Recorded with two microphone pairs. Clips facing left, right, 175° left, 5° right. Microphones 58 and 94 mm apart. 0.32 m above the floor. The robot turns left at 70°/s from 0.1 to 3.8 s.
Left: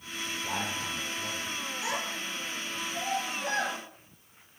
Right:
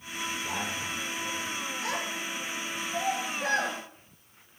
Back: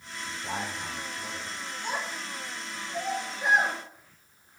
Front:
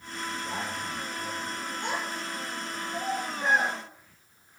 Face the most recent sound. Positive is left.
turn(degrees=-125)